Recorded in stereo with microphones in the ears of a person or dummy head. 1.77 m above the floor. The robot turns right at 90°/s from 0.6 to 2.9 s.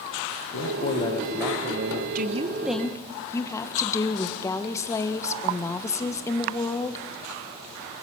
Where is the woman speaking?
50° right, 1.5 m; by 7.0 s 15° left, 1.5 m.